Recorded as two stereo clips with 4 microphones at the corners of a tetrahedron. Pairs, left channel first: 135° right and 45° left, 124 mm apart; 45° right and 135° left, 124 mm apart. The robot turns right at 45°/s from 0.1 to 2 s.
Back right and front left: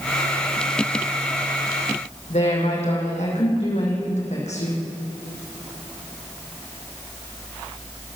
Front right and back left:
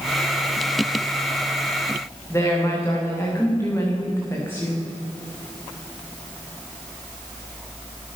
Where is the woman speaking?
115° right, 9 m.